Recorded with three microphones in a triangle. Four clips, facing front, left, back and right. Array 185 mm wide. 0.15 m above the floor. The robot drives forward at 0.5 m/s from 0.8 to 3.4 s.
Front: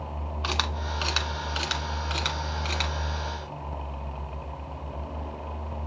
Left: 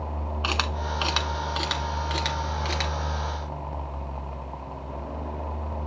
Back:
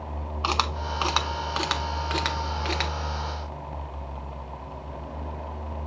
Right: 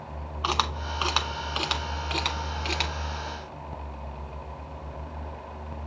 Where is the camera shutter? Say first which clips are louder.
Right 2 dB, back 5 dB; 145° right, 0.9 m; by 2.9 s 165° right, 1.7 m.